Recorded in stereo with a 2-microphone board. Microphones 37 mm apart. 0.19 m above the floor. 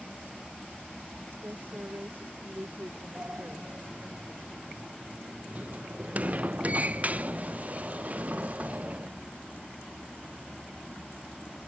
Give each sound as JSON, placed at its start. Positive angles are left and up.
{"t": 1.4, "sound": "a woman speaking", "side_deg": -55}
{"t": 3.1, "sound": "a sliding door", "side_deg": -40}